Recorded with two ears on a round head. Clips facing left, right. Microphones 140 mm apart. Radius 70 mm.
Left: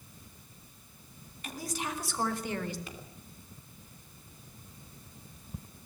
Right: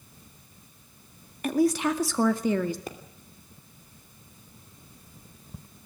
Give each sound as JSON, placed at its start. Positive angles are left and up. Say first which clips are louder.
{"t": 1.4, "sound": "a woman speaking", "louder": "right 15 dB", "side_deg": -45, "distance_m": 2.0}
{"t": 2.9, "sound": "a pop", "louder": "right 8 dB", "side_deg": -35, "distance_m": 2.5}